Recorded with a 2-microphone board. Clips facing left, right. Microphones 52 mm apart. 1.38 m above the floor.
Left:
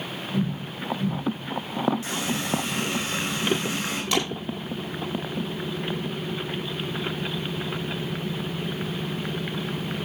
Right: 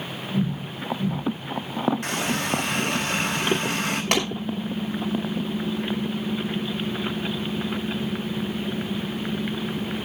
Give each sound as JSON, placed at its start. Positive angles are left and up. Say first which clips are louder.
{"t": 2.0, "sound": "a running tap", "louder": "right 3 dB", "side_deg": -60, "distance_m": 4.5}
{"t": 4.1, "sound": "a clap", "louder": "right 1 dB", "side_deg": -55, "distance_m": 6.0}